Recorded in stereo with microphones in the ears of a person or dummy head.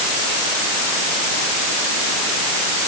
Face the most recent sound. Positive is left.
No sound to turn to.